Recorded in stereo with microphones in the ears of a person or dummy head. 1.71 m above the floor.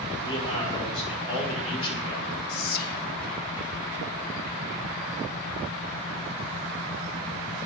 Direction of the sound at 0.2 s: 25° left (ahead or behind).